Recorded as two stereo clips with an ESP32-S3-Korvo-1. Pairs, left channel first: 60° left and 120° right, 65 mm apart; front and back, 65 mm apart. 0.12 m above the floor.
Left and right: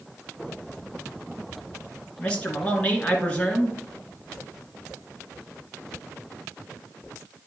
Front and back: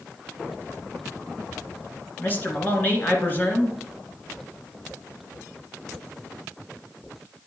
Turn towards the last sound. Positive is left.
turn(degrees=10)